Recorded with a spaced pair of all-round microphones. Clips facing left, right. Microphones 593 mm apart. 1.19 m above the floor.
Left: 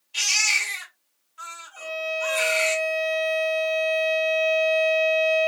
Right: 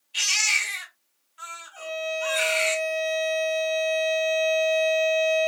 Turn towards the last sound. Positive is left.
turn(degrees=65)  # may be behind; listen again after turning